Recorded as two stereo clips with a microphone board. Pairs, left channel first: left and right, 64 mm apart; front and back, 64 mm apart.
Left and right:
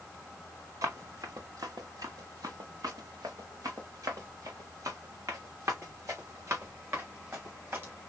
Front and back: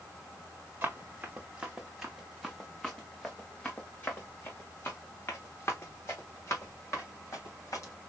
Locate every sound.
0.8 s running footsteps: 120° right, 1.6 m; by 7.9 s 40° right, 3.5 m